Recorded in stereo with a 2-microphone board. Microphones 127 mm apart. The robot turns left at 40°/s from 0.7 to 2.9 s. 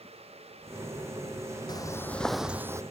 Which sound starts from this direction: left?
Footsteps, at 1.7 s.